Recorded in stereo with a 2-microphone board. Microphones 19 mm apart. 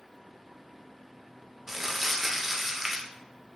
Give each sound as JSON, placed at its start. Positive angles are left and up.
{"t": 1.7, "sound": "crumpling", "side_deg": -20, "distance_m": 0.8}